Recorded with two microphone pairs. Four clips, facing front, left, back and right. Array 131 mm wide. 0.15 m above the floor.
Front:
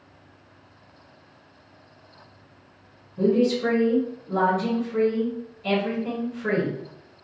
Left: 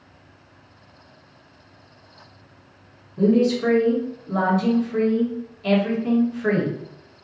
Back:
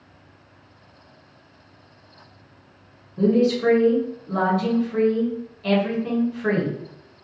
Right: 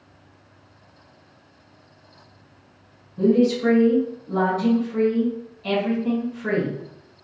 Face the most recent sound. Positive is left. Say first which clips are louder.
# even, back 2 dB
turn(degrees=140)